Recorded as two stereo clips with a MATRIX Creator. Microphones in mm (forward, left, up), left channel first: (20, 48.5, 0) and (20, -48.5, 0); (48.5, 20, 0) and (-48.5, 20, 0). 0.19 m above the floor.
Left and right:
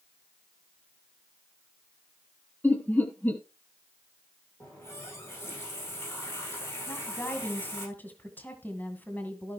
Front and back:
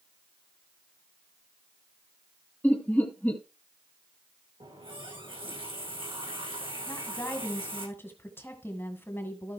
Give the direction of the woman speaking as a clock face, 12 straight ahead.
11 o'clock.